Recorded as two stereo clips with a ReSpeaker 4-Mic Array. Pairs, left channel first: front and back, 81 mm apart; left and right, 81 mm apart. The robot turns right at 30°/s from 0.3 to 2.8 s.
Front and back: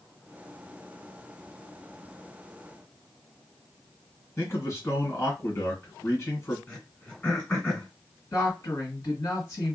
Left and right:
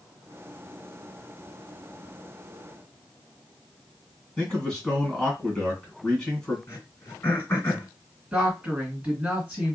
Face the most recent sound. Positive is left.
turn(degrees=-25)